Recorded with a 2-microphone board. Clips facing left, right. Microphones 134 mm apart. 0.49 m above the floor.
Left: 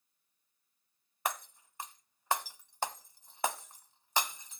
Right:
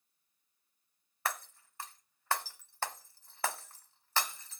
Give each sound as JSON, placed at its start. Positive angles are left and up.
{"t": 1.2, "sound": "breaking glass", "side_deg": 15, "distance_m": 0.7}